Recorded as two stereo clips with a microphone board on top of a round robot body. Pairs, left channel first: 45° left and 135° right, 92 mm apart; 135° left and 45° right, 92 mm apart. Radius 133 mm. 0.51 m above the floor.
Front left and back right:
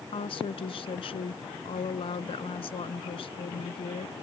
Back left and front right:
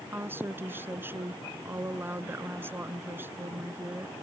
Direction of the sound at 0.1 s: 20° left.